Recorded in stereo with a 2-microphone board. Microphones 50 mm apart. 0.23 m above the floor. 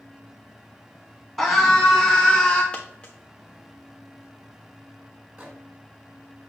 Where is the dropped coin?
20° left (ahead or behind), 1.3 m.